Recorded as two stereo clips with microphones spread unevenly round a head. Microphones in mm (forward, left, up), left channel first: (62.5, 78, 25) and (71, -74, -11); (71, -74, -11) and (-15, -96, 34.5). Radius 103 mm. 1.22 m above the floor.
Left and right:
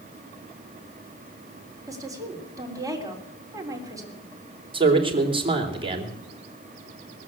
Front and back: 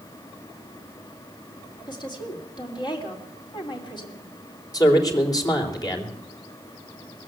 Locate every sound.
1.9 s a woman speaking: 20° right, 3.5 m
4.7 s a man speaking: 30° right, 3.5 m